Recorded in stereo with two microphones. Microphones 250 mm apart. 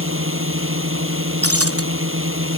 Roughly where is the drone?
Right.